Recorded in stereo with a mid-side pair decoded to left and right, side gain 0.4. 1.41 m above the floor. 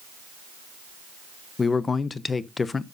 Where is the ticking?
I don't hear ticking.